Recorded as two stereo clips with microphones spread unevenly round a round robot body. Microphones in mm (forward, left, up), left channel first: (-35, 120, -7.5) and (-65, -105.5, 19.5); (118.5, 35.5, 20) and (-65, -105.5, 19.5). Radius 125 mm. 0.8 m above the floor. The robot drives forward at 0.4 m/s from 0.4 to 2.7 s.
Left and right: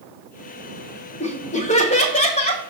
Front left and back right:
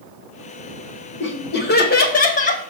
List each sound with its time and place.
1.2 s laughter: 40° left, 1.4 m; by 2.6 s 70° left, 1.1 m